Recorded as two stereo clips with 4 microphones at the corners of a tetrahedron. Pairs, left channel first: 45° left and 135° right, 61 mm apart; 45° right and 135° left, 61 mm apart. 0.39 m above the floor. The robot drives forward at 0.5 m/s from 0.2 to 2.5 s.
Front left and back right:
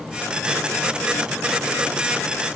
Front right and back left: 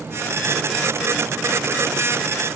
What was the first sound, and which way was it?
Only background noise.